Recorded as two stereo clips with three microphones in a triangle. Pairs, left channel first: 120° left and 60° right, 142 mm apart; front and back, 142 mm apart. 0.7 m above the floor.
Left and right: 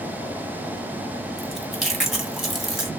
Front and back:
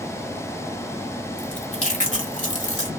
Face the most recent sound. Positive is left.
turn(degrees=30)